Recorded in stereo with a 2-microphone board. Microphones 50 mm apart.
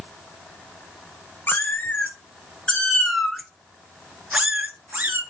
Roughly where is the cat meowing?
Left.